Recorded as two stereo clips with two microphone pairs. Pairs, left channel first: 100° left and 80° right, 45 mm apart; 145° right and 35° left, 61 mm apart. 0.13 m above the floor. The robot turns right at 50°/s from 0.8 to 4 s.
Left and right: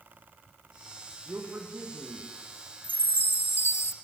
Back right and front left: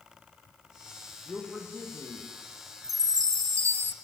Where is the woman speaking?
45° right, 6 m; by 2.3 s 5° left, 6 m.